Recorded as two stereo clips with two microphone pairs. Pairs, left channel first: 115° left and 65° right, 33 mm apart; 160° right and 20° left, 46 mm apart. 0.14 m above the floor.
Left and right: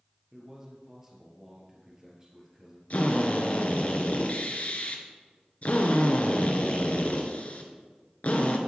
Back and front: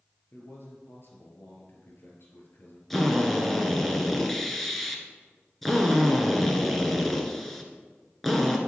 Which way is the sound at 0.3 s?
140° right.